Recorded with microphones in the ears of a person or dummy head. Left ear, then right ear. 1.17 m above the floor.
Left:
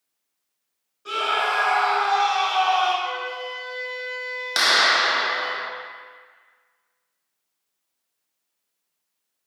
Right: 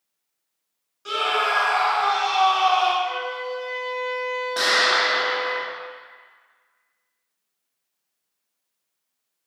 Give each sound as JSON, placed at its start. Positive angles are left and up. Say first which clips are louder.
{"t": 1.1, "sound": "a scream", "louder": "right 1 dB", "side_deg": -30, "distance_m": 1.6}
{"t": 3.0, "sound": "a flute", "louder": "right 1 dB", "side_deg": 55, "distance_m": 1.1}
{"t": 4.6, "sound": "a clap", "louder": "left 2 dB", "side_deg": 70, "distance_m": 0.8}